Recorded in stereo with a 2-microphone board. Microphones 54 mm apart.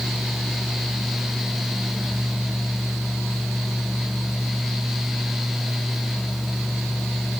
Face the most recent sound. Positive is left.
No sound to turn to.